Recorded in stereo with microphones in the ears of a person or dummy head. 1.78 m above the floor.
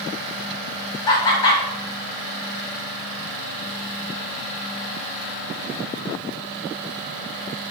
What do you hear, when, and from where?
1.1 s laughter: 25° left (ahead or behind), 0.6 m